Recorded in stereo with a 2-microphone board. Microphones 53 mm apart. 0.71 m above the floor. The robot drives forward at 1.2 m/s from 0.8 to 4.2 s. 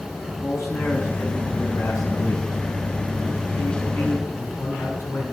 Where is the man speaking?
75° left (ahead or behind), 5.5 m; by 5.2 s 65° left (ahead or behind), 6 m.